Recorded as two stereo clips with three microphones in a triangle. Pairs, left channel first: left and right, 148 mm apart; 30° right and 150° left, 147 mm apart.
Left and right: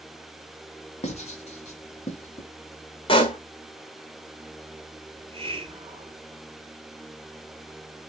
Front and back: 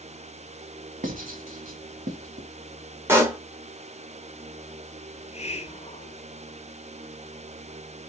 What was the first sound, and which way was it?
Writing, 130° left.